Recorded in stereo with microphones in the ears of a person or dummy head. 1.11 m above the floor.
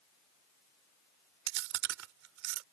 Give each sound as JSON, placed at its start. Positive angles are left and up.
{"t": 1.5, "sound": "chewing", "side_deg": -70}